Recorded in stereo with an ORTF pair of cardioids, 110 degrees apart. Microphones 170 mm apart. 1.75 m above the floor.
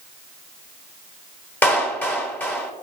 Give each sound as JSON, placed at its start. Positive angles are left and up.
{"t": 1.6, "sound": "a clap", "azimuth_deg": 10, "distance_m": 3.5}